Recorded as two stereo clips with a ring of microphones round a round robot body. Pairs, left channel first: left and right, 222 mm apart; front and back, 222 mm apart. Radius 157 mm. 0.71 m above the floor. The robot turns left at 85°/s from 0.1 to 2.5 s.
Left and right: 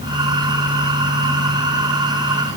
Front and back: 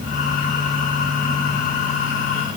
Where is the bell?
I don't hear a bell.